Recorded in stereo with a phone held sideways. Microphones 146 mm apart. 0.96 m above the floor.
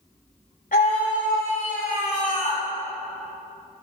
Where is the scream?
80° left, 3.5 m; by 2.6 s 65° left (ahead or behind), 4 m.